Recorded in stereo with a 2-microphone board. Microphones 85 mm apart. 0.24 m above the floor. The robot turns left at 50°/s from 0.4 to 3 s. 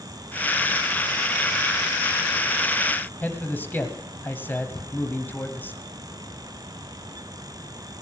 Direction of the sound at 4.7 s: 65° left (ahead or behind).